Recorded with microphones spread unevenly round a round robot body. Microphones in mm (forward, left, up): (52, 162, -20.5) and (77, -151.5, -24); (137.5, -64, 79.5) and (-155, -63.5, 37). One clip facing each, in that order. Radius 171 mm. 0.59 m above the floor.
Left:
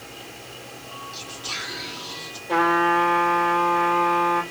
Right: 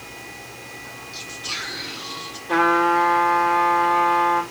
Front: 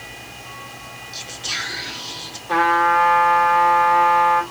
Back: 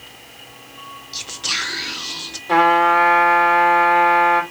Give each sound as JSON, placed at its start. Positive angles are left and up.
{"t": 1.1, "sound": "whispering", "azimuth_deg": -165, "distance_m": 0.6}
{"t": 2.5, "sound": "a trumpet", "azimuth_deg": -155, "distance_m": 2.0}